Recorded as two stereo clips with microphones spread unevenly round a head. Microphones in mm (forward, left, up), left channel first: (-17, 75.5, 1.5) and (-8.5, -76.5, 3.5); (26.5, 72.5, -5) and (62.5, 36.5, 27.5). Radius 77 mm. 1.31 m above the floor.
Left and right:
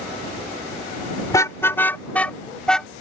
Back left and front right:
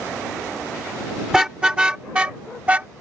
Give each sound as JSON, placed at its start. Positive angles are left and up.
{"t": 1.3, "sound": "a car horn", "azimuth_deg": 20}